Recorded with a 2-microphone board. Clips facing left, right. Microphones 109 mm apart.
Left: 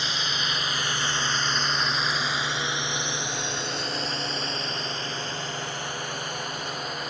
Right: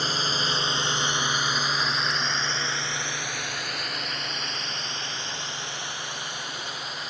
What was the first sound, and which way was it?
A drone, 40° right (ahead or behind).